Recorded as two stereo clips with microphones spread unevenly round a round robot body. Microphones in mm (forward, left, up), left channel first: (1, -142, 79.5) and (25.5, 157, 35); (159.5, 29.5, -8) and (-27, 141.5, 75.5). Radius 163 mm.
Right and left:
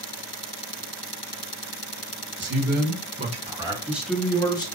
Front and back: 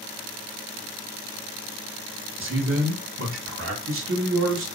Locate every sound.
2.4 s a man speaking: 115° left, 1.8 m; by 4.7 s 170° right, 1.4 m